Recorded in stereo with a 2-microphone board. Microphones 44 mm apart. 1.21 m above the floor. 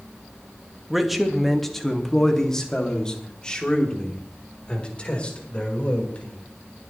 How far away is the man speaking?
About 1.6 m.